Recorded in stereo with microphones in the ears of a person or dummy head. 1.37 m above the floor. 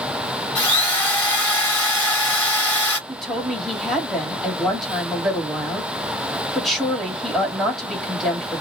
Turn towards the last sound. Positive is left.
turn(degrees=0)  # may be behind; listen again after turning